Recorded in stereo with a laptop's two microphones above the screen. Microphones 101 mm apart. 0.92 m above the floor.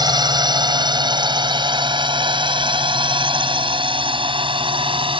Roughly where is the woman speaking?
I don't hear a woman speaking.